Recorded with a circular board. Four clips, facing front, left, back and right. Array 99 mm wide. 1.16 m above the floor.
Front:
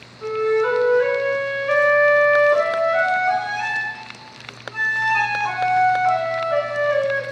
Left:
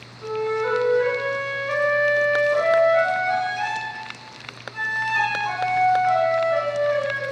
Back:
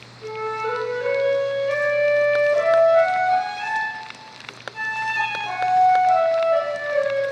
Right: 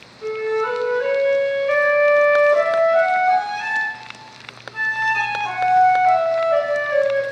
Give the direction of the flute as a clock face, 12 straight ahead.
12 o'clock.